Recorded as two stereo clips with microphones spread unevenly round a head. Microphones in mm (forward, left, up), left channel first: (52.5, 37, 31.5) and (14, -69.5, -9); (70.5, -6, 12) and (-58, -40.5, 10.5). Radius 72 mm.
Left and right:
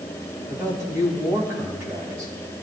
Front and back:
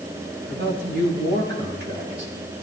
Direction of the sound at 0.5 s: 170° left.